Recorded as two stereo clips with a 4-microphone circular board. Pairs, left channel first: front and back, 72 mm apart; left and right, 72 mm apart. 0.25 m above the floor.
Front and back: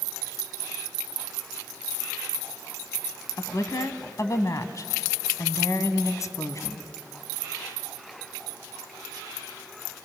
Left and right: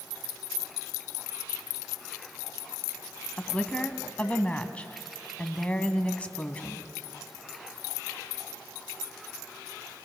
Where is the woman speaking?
20° left, 1.5 m.